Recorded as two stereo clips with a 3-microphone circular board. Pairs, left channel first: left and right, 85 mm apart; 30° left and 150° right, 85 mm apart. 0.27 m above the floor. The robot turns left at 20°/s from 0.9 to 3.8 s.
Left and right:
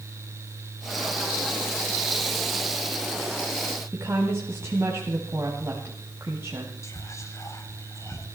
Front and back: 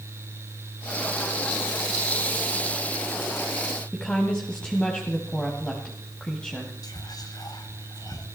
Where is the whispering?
50° left, 2 m.